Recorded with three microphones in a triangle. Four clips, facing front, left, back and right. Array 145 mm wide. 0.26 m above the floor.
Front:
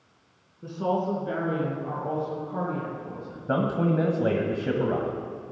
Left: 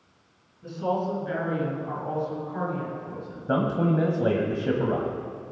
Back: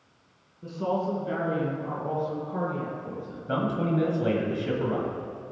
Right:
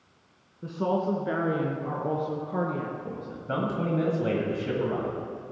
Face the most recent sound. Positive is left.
turn(degrees=45)